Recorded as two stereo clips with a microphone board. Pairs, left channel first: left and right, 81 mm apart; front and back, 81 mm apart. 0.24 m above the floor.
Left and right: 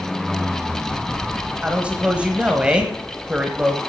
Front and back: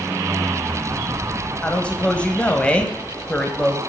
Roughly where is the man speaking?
Ahead right.